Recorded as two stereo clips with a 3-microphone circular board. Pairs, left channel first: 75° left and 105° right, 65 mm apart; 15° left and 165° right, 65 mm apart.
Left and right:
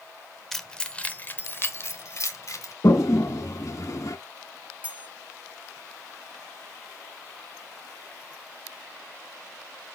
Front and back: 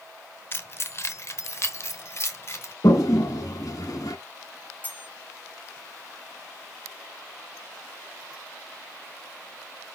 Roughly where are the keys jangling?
Ahead.